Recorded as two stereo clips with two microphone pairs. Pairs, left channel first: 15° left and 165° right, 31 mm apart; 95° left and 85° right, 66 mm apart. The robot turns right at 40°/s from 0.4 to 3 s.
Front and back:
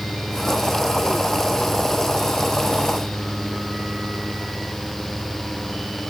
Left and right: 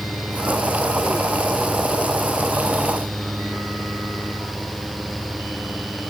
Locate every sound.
Only background noise.